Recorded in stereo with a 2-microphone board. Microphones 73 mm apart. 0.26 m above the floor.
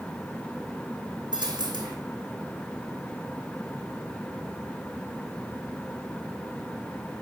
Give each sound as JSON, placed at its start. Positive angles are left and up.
{"t": 1.3, "sound": "a dropped coin", "side_deg": -90, "distance_m": 2.5}